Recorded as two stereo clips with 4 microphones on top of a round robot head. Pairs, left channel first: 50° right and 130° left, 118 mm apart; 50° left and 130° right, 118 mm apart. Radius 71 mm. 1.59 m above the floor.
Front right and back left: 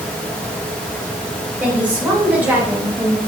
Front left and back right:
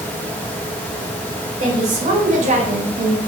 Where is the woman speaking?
155° right, 1.8 m; by 3.2 s 165° right, 0.6 m.